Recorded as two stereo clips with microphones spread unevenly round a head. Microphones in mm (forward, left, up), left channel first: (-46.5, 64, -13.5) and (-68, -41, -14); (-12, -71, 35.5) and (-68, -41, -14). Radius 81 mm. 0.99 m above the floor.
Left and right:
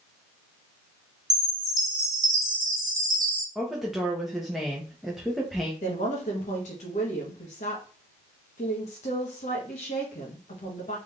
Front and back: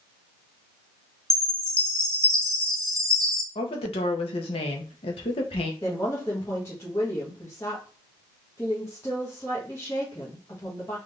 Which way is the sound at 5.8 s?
55° left.